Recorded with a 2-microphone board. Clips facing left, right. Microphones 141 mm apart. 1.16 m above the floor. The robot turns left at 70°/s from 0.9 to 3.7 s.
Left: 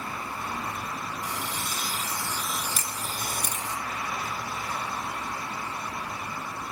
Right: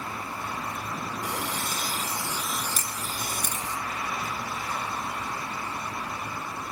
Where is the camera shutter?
40° right (ahead or behind), 3 m; by 3.7 s 25° left (ahead or behind), 3 m.